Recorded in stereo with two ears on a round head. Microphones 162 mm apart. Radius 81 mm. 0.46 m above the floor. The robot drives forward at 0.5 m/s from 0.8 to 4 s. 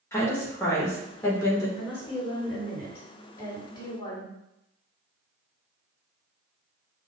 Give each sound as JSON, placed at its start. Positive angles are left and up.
{"t": 0.1, "sound": "a woman speaking", "side_deg": 15, "distance_m": 1.4}
{"t": 1.8, "sound": "a woman speaking", "side_deg": 15, "distance_m": 2.5}